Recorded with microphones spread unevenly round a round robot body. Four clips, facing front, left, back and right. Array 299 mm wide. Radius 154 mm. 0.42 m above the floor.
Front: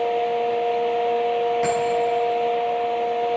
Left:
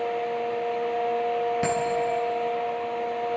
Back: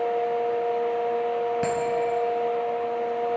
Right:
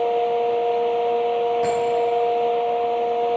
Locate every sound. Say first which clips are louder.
1.6 s a bell: right 5 dB, front 4 dB; 130° left, 3 m